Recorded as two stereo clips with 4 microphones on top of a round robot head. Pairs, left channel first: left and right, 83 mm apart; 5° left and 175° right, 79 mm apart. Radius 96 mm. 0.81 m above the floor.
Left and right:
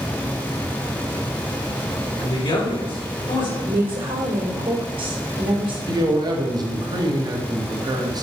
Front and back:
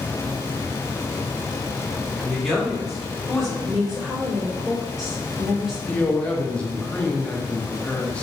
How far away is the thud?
I don't hear a thud.